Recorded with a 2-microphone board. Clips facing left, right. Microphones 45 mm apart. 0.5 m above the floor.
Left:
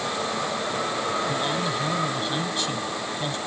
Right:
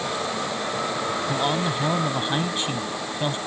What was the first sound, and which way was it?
A man speaking, 30° right (ahead or behind).